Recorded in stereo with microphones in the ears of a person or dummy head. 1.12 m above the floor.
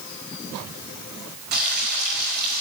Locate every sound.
1.5 s frying: 55° right (ahead or behind), 4 m